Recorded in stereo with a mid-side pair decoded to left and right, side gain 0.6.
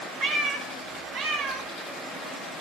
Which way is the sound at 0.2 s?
70° right.